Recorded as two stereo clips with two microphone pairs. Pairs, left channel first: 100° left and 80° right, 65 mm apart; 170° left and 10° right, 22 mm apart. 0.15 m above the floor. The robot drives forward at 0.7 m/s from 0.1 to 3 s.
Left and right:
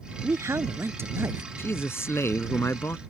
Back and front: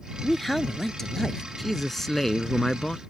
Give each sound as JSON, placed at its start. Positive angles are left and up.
{"t": 0.2, "sound": "a man speaking", "azimuth_deg": -110}
{"t": 1.6, "sound": "a man speaking", "azimuth_deg": 80}